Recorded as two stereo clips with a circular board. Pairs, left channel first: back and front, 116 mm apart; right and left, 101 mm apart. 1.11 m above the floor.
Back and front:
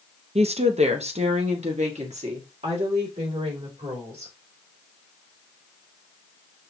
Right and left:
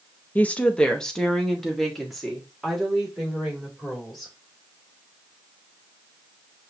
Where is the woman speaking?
20° right, 0.6 m; by 4.3 s 5° left, 3 m.